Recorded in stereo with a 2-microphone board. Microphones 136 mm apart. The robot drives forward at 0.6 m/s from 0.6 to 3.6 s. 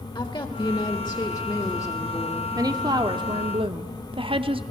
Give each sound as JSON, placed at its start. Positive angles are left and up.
{"t": 0.1, "sound": "a woman speaking", "side_deg": 35, "distance_m": 1.4}
{"t": 2.5, "sound": "a woman speaking", "side_deg": -30, "distance_m": 1.8}